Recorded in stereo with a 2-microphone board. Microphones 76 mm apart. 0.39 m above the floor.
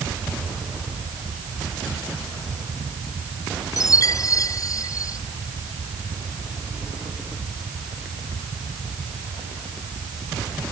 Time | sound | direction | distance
3.8 | a chime | 45° left (ahead or behind) | ?